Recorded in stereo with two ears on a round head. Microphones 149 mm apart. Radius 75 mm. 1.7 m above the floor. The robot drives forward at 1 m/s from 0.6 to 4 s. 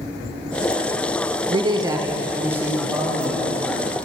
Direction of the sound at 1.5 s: 30° right (ahead or behind).